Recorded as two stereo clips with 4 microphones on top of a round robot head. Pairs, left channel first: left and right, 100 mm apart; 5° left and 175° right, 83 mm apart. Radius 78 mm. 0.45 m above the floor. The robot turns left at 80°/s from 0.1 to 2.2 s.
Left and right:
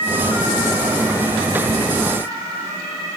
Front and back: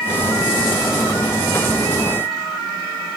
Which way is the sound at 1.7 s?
85° right.